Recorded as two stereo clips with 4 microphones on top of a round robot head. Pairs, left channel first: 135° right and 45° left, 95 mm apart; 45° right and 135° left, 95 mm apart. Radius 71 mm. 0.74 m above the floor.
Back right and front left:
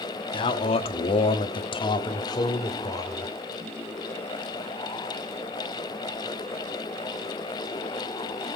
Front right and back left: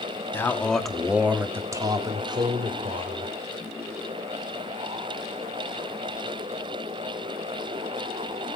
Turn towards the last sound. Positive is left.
turn(degrees=165)